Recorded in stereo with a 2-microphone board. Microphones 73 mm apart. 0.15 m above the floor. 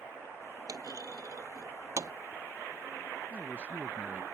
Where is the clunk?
55° right (ahead or behind).